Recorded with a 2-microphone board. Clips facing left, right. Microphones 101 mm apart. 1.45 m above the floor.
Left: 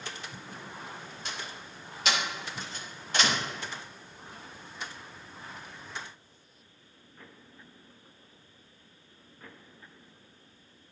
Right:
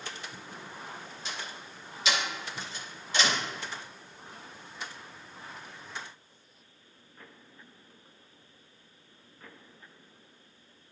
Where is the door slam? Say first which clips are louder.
Even; 60° left (ahead or behind), 2.5 m.